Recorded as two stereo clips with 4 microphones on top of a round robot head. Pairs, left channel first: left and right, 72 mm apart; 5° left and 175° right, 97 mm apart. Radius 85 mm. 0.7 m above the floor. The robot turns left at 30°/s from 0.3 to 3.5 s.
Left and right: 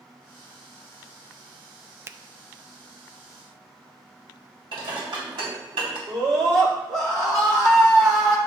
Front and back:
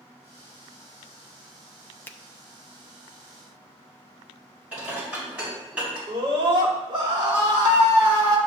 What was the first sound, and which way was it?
A finger snap, 55° right.